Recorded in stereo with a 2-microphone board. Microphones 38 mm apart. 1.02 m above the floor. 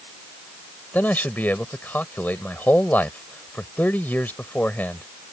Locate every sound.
0.9 s a man speaking: 65° left (ahead or behind)